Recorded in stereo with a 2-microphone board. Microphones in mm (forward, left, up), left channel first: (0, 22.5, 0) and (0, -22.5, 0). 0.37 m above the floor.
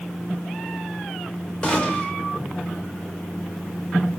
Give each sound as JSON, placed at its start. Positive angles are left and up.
{"t": 1.6, "sound": "a gunshot", "side_deg": 25, "distance_m": 1.1}